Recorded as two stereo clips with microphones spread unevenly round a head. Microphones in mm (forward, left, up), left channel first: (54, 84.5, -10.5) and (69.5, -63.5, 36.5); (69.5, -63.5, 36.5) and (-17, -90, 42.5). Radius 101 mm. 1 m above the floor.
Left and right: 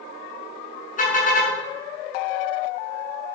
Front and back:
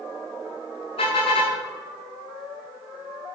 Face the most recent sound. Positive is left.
turn(degrees=65)